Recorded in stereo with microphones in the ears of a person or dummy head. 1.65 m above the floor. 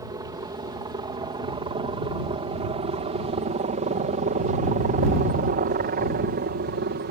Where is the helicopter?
20° right (ahead or behind); by 7.1 s 50° right (ahead or behind).